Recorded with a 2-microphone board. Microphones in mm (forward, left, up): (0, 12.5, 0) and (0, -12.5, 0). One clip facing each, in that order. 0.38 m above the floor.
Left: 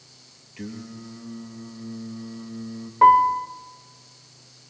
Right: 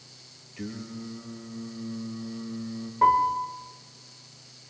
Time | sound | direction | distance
0.6 | singing | 20° left (ahead or behind) | 2.5 m
3.0 | a piano | 30° left (ahead or behind) | 1.2 m